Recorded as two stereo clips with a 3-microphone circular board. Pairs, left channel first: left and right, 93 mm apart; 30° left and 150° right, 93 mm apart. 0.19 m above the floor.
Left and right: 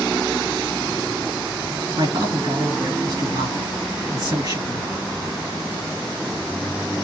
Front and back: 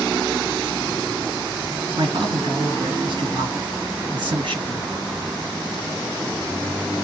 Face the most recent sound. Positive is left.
turn(degrees=-125)